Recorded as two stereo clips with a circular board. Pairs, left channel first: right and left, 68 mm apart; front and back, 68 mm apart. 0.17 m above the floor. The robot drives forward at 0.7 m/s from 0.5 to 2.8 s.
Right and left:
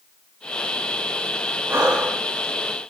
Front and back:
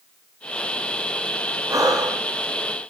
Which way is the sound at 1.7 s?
145° left.